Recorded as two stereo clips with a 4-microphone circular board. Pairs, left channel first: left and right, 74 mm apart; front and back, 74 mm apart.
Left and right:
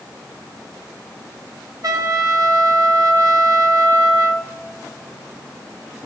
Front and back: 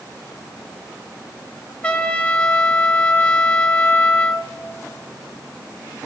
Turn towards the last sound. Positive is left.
turn(degrees=-70)